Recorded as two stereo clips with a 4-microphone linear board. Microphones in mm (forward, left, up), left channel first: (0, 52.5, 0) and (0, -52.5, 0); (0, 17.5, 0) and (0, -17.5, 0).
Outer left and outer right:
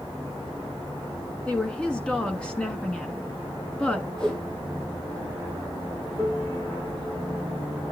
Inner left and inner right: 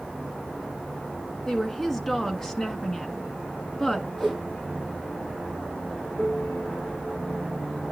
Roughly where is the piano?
Centre.